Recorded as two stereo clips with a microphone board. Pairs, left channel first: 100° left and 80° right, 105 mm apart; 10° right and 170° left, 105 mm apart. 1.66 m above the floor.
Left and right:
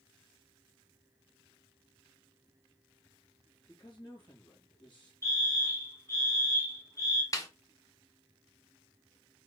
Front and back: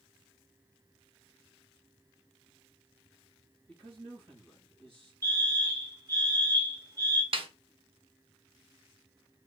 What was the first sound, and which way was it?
A man speaking, 140° left.